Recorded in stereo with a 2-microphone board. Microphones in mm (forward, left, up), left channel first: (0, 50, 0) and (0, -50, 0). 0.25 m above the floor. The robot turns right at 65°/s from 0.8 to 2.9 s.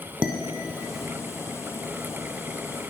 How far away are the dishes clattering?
About 1.1 m.